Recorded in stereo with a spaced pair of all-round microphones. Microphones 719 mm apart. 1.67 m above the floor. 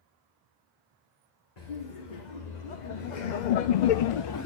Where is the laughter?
65° left (ahead or behind), 1.9 m; by 4.5 s 25° left (ahead or behind), 0.5 m.